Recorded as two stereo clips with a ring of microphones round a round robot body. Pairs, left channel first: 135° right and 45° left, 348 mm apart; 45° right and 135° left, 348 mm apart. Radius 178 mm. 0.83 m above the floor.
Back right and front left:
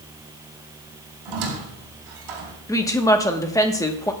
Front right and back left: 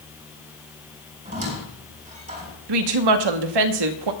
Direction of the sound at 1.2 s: 65° left.